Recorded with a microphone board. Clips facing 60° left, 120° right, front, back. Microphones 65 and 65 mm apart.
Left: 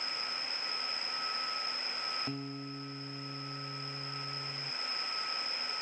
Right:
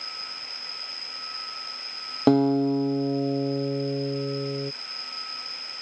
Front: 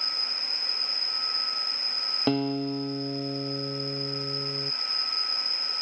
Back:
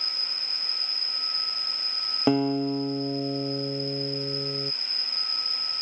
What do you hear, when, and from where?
0.0 s an insect: 125° right
2.3 s a guitar: 105° right